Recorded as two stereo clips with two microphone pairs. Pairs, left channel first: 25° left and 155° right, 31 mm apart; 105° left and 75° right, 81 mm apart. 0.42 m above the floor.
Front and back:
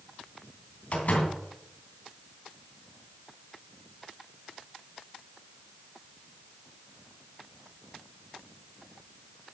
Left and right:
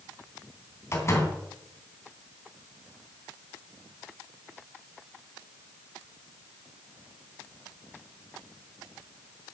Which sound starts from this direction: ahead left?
A door slam, at 0.9 s.